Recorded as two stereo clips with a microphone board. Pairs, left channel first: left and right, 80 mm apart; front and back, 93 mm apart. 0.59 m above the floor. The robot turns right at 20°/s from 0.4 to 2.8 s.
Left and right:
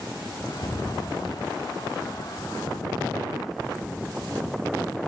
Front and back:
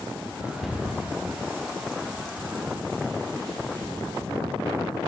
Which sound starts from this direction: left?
A cupboard door, at 0.6 s.